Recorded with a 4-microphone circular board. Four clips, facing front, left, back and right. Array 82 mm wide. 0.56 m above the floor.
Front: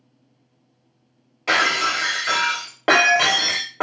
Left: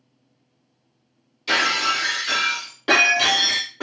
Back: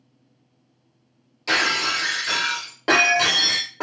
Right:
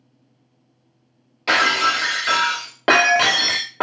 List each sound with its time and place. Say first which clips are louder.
1.5 s breaking glass: right 4 dB, front 3 dB; 65° right, 0.7 m